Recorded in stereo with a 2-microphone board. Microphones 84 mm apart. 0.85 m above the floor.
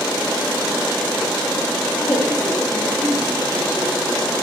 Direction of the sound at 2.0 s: 15° left (ahead or behind).